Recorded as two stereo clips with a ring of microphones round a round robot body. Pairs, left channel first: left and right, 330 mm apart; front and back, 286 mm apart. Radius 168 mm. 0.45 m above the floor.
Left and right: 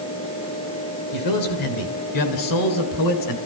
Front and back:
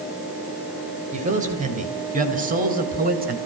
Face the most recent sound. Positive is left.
turn(degrees=120)